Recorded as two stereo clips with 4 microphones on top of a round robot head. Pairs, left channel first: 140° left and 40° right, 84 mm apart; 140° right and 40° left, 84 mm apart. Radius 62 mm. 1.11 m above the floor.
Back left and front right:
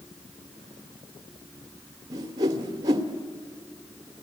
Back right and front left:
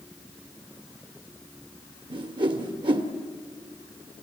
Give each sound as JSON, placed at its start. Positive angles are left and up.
{"t": 2.1, "sound": "a whoosh", "azimuth_deg": 5, "distance_m": 1.6}